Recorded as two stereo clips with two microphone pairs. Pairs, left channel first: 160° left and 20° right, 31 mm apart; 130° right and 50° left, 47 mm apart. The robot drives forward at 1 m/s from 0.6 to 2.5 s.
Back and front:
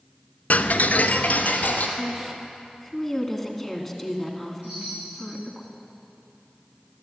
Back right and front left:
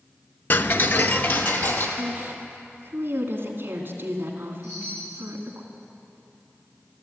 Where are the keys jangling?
No keys jangling in this recording.